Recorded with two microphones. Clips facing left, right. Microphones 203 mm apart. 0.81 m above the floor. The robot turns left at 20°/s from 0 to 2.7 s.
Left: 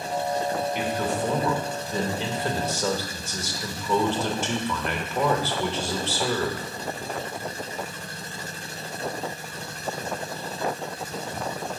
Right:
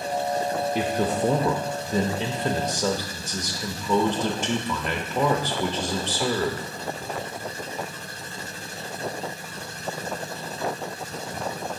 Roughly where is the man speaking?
Behind right.